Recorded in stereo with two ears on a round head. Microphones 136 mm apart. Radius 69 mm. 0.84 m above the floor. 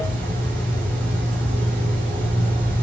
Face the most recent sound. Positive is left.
turn(degrees=-70)  # may be behind; listen again after turning